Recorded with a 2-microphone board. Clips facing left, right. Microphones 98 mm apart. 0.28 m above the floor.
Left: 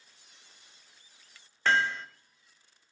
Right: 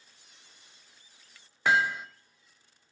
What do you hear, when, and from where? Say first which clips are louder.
1.6 s hammering: right 1 dB; 10° right (ahead or behind), 0.6 m